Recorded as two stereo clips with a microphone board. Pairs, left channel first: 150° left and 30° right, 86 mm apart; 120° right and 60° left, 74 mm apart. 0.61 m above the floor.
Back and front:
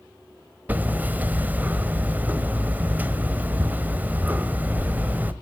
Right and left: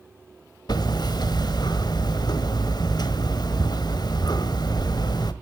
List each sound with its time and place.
0.7 s hammering: 100° right, 1.4 m